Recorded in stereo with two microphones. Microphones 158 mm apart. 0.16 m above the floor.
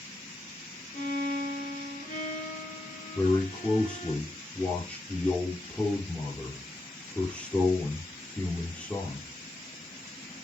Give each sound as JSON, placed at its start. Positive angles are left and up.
{"t": 0.9, "sound": "a violin", "side_deg": 55, "distance_m": 3.0}
{"t": 3.1, "sound": "a man speaking", "side_deg": 10, "distance_m": 3.5}